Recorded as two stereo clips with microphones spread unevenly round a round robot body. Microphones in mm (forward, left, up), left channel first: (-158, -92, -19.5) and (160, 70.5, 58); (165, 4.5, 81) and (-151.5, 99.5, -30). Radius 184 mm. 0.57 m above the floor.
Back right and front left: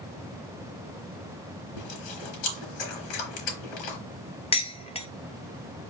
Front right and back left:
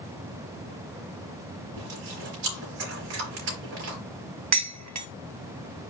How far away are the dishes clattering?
About 0.8 m.